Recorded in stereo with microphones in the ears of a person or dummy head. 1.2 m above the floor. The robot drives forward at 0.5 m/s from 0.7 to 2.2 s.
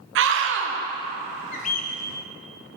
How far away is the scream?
About 0.8 m.